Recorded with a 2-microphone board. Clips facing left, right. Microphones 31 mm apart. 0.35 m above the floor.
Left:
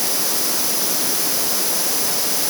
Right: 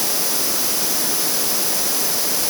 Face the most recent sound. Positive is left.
No sound to turn to.